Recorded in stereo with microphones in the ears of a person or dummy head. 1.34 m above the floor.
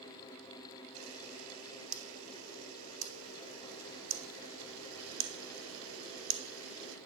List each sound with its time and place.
0.9 s a camera shutter: 80° right, 1.1 m